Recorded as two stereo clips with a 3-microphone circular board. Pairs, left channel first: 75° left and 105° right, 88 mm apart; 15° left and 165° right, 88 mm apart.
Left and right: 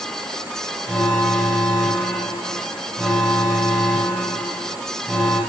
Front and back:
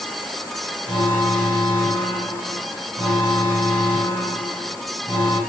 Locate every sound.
0.9 s an alarm: 10° right, 8.5 m